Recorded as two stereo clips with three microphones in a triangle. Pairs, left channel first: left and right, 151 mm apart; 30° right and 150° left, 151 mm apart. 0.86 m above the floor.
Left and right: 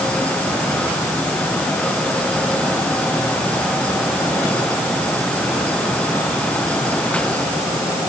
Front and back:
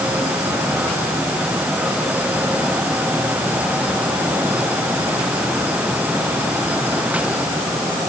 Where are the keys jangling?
I don't hear keys jangling.